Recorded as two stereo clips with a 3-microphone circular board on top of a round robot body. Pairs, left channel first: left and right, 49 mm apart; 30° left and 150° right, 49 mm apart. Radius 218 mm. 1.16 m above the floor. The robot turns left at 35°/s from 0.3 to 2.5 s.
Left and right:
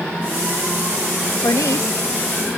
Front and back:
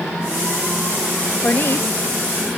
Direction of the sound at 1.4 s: 80° left.